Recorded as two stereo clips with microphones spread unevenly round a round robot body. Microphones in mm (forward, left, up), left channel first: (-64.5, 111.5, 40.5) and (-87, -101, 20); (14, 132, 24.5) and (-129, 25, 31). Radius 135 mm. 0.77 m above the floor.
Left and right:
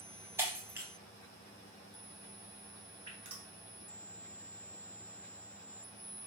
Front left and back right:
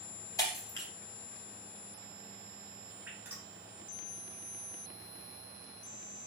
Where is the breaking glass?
15° right, 0.6 m.